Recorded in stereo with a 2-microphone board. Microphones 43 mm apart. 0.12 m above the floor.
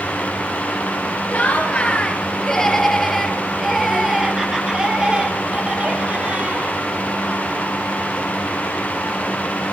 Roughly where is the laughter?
Left.